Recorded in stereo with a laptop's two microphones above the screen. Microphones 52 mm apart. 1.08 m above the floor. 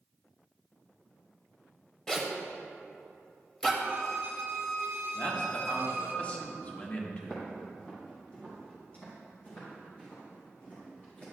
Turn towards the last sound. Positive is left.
turn(degrees=35)  # may be behind; listen again after turning